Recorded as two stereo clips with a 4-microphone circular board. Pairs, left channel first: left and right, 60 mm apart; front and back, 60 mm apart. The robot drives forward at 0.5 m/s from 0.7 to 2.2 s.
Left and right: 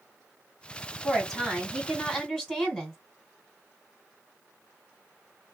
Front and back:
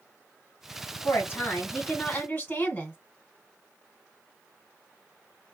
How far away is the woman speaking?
About 1.7 m.